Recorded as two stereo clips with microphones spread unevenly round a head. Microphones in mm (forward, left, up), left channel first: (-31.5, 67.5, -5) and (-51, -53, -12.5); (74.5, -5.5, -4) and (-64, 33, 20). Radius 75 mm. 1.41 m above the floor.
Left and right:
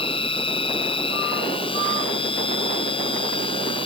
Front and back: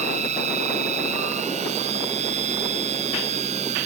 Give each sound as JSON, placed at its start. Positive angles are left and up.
{"t": 0.0, "sound": "a machine running", "azimuth_deg": 125}